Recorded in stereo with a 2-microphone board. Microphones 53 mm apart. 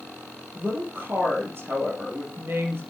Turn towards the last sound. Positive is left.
turn(degrees=-45)  # may be behind; listen again after turning